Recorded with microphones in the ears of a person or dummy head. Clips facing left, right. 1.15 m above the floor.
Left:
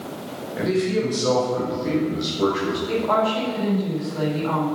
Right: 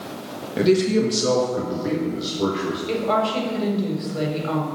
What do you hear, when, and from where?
0.6 s a man speaking: 50° right (ahead or behind), 1.5 m; by 2.8 s 10° left (ahead or behind), 1.7 m
2.9 s a woman speaking: 40° right (ahead or behind), 3.5 m